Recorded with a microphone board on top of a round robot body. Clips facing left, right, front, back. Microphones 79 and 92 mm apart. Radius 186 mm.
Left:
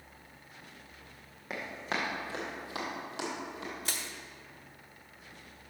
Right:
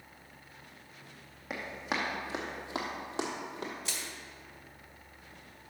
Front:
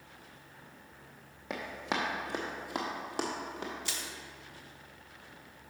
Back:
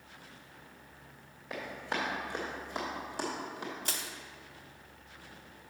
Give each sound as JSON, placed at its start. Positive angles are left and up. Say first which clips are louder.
{"t": 1.5, "sound": "running footsteps", "louder": "even, front 2 dB", "azimuth_deg": -5, "distance_m": 1.8}
{"t": 3.9, "sound": "crushing", "louder": "left 1 dB, back 1 dB", "azimuth_deg": 135, "distance_m": 0.6}